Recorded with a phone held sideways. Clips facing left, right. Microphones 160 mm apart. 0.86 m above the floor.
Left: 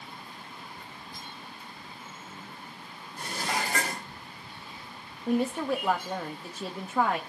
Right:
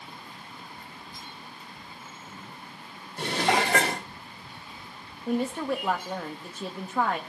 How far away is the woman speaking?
About 1.2 m.